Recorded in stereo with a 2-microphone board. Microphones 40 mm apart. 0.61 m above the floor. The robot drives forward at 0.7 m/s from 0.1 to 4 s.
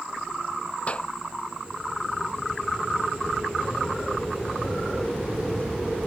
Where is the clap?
25° left (ahead or behind).